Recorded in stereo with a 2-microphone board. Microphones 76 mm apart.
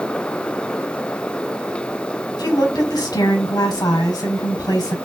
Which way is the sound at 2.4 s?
60° left (ahead or behind).